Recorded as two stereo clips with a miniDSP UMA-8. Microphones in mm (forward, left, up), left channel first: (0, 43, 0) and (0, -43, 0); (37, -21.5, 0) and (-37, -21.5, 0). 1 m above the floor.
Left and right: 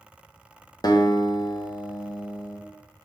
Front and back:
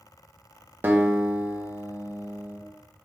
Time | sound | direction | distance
0.8 | a guitar | 120° left | 0.6 m